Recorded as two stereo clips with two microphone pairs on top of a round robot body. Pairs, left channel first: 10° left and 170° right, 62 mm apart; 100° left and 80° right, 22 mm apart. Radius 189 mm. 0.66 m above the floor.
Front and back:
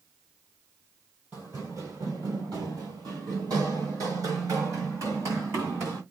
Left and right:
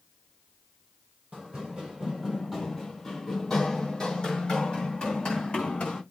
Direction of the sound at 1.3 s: 105° right.